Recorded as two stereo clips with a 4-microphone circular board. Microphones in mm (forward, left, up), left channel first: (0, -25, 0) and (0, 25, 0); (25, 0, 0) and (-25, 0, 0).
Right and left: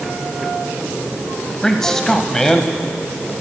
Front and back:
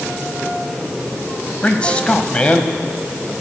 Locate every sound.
1.6 s a man speaking: 20° right, 1.1 m